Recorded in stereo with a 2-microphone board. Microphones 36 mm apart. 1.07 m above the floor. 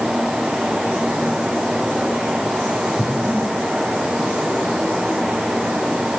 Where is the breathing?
15° right (ahead or behind), 7.5 m.